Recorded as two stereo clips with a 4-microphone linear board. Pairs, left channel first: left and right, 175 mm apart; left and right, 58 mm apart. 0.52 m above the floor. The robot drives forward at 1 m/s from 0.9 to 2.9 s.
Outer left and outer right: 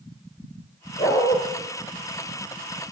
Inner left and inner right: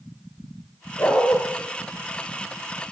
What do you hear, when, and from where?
1.0 s a dog barking: 35° left (ahead or behind), 3 m; by 1.4 s 40° left (ahead or behind), 3 m